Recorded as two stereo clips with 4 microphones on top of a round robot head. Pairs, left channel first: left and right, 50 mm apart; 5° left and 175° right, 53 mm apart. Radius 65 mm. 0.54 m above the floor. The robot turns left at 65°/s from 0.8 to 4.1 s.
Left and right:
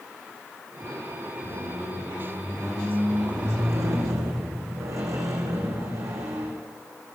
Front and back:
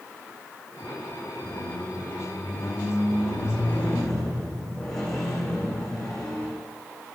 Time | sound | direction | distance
1.4 | a squeak | 95° left | 5.5 m